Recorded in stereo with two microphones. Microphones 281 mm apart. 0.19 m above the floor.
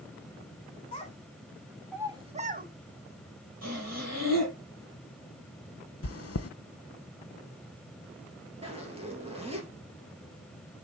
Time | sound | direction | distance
0.9 | a child speaking | 25° left (ahead or behind) | 1.0 m
3.6 | breathing | 65° right (ahead or behind) | 6 m
6.0 | chewing | 55° left (ahead or behind) | 0.5 m
8.6 | a zipper | 20° right (ahead or behind) | 3 m